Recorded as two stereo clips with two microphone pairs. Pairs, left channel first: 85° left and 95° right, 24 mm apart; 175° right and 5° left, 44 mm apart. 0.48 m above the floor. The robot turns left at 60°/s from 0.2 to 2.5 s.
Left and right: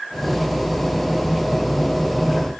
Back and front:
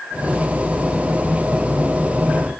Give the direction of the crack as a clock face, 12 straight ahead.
No crack in this recording.